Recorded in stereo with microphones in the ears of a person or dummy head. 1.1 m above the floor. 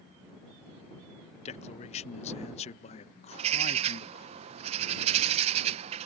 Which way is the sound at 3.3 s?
30° right (ahead or behind).